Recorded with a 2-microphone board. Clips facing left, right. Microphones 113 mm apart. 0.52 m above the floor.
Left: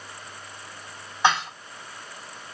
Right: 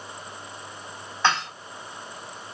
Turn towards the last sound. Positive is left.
turn(degrees=15)  # may be behind; listen again after turning